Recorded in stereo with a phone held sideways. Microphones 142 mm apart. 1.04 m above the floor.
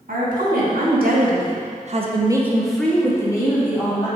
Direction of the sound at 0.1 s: 80° right.